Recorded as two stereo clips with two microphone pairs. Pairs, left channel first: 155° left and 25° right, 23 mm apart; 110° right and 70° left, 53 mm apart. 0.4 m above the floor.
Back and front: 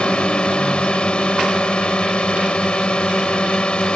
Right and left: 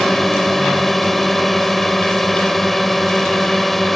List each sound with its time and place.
0.0 s a drone: 165° left